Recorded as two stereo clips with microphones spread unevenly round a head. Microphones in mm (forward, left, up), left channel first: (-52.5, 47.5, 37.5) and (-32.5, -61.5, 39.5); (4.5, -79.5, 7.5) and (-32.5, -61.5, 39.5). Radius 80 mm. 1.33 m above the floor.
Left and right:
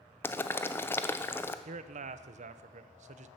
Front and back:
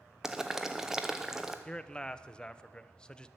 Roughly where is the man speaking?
Right.